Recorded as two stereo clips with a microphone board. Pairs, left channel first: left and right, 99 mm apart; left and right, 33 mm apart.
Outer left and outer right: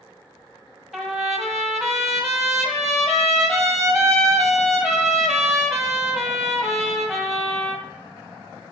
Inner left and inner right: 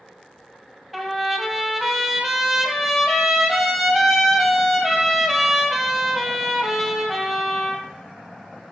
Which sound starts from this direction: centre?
A trumpet, at 0.9 s.